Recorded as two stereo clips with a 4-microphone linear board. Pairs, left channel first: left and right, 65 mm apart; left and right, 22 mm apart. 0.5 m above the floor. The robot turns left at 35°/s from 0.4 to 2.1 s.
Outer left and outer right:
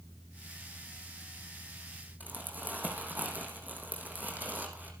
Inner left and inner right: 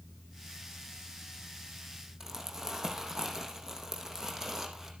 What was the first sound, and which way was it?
Crumpling, 25° right (ahead or behind).